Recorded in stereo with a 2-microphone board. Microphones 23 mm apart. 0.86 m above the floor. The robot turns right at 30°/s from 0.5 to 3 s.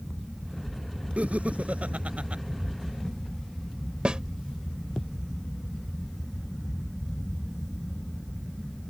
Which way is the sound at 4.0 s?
45° right (ahead or behind).